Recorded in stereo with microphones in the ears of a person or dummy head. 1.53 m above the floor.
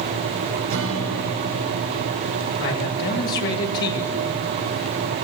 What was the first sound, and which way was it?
A guitar, 70° right (ahead or behind).